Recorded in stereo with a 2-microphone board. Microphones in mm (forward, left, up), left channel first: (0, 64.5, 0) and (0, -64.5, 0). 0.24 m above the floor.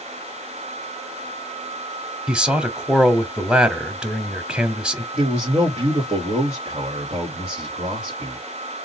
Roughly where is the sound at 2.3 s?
Centre.